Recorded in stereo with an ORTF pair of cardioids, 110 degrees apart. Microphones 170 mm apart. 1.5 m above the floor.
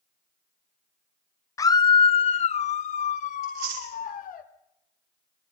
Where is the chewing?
70° right, 5 m.